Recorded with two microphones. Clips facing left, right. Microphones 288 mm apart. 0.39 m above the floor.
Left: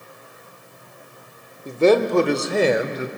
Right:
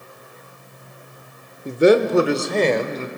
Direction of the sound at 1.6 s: 20° right (ahead or behind).